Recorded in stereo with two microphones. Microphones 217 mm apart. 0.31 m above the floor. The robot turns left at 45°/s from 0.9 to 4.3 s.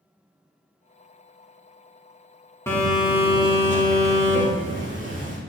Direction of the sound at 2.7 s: 15° left.